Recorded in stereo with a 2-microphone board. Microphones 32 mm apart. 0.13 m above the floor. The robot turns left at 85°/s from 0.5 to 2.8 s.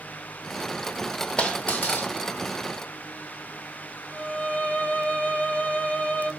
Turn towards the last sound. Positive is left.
turn(degrees=55)  # may be behind; listen again after turning